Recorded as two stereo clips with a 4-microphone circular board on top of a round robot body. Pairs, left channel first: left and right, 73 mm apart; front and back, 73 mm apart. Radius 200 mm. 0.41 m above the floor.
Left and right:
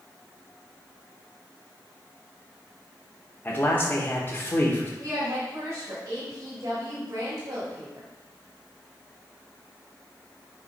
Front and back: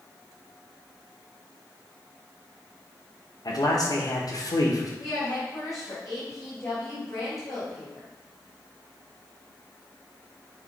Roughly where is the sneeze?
I don't hear a sneeze.